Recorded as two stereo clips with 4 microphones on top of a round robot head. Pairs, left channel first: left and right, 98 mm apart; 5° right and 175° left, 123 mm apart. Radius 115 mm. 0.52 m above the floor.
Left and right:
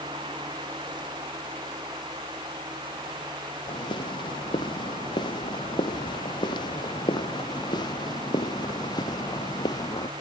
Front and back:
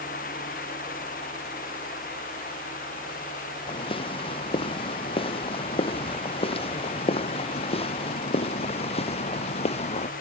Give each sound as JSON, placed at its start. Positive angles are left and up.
{"t": 3.7, "sound": "footsteps", "azimuth_deg": 40}